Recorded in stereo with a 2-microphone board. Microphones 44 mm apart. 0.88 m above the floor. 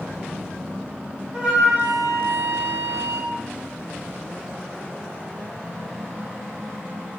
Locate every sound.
1.3 s a flute: 20° right (ahead or behind), 0.7 m